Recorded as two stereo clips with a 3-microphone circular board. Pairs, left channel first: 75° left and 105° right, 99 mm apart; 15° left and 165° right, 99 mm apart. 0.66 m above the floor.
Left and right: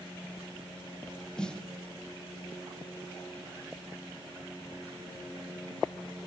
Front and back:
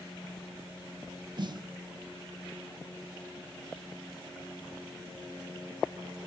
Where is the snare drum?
155° left, 0.7 m.